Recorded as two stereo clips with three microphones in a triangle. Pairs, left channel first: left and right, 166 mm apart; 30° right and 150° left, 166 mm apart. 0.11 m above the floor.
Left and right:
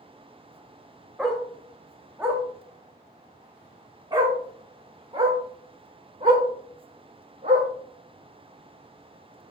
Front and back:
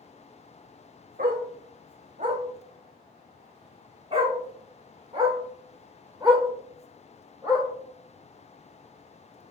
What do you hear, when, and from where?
1.2 s a dog barking: straight behind, 2 m; by 7.7 s 135° right, 5 m